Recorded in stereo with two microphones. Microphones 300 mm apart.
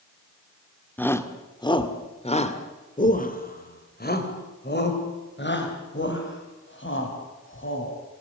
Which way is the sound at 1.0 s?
5° left (ahead or behind).